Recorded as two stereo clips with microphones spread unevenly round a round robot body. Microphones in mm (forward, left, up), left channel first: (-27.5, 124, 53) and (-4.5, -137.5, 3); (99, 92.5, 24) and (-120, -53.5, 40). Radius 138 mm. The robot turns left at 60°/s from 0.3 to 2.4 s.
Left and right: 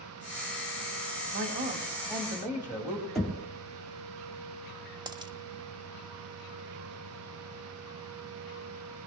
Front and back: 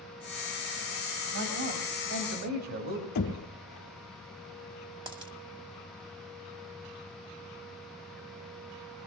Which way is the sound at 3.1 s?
5° left.